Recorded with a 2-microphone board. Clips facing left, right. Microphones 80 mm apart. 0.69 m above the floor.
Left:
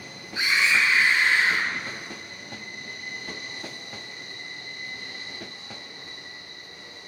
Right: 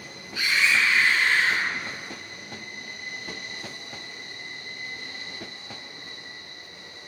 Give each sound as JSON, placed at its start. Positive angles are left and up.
{"t": 0.3, "sound": "a scream", "side_deg": 25, "distance_m": 8.5}